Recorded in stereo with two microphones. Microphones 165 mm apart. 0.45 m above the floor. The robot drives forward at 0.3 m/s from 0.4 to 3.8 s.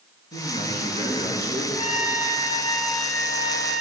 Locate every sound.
0.3 s a man speaking: 75° left (ahead or behind), 6 m; by 1.6 s 80° left, 6 m
1.8 s a trumpet: 45° left (ahead or behind), 1.8 m; by 3.8 s 40° left (ahead or behind), 1.9 m